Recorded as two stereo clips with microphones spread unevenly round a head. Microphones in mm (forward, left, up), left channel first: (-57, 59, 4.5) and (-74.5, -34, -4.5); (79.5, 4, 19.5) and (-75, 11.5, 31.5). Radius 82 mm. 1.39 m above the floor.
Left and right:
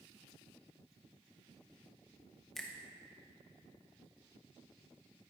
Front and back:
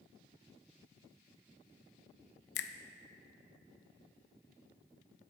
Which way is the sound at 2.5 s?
5° right.